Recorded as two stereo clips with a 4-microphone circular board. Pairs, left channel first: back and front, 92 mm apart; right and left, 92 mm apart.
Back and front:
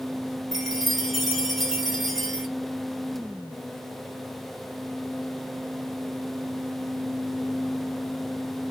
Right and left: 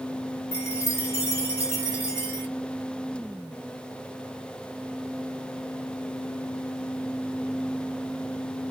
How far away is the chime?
About 1.3 m.